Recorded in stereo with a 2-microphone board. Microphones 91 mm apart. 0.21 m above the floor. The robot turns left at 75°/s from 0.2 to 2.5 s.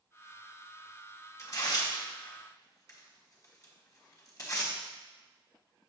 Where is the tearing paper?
30° left (ahead or behind), 2.0 m; by 4.7 s 40° left (ahead or behind), 2.0 m.